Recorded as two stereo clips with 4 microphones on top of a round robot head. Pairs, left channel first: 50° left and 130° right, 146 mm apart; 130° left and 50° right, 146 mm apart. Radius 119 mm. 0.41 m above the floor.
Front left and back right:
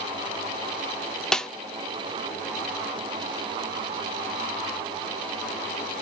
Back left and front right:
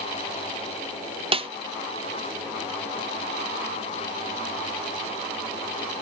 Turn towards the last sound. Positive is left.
turn(degrees=-30)